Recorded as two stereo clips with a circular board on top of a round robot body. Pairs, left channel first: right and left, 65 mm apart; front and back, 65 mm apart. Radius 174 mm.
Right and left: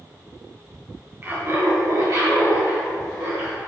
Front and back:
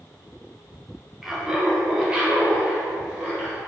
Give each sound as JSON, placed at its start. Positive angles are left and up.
{"t": 1.2, "sound": "laughter", "azimuth_deg": 100, "distance_m": 0.9}